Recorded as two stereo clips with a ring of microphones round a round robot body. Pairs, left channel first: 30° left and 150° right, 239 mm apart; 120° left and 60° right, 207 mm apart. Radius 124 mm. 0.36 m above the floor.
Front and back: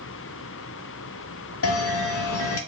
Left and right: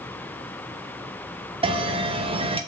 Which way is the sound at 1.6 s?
5° left.